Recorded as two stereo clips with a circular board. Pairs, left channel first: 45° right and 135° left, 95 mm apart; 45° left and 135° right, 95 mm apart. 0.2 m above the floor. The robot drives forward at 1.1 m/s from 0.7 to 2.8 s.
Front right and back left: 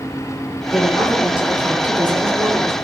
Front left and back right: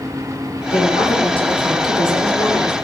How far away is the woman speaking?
About 4.5 m.